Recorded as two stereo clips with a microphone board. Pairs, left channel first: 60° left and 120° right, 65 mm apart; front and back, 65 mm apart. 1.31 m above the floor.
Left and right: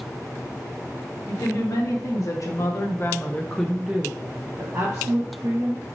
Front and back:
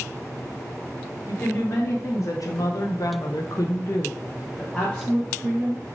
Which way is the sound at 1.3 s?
45° left.